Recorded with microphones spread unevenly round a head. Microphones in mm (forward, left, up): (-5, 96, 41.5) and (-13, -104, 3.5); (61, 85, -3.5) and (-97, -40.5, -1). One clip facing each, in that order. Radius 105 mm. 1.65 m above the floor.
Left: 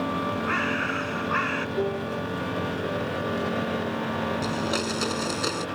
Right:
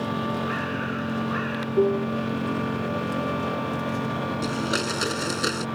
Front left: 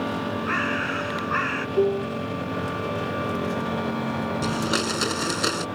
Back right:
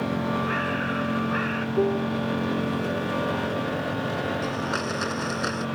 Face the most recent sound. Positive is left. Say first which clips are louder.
# right 1 dB, front left 3 dB
turn(degrees=-10)